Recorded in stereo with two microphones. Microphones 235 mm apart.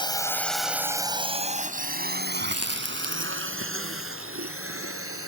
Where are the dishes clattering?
No dishes clattering in this recording.